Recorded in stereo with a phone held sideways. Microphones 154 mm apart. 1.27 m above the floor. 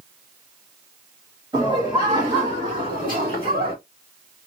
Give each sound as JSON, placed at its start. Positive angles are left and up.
{"t": 1.5, "sound": "laughter", "side_deg": -30, "distance_m": 2.0}